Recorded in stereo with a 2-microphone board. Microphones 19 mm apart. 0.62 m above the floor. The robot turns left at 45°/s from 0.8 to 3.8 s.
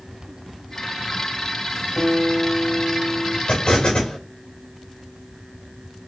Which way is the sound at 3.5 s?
70° left (ahead or behind).